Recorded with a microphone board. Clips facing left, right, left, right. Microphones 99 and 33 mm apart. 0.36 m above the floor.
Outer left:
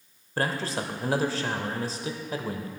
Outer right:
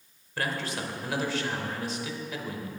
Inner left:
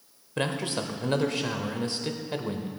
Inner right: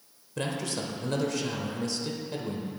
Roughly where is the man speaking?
Left.